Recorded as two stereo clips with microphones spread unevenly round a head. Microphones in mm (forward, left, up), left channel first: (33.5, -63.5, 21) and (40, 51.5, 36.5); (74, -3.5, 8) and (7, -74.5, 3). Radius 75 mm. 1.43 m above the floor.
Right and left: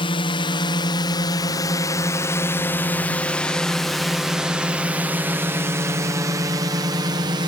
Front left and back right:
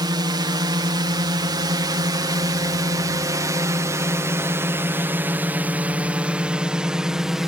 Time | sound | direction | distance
0.0 | a drone | 110° right | ?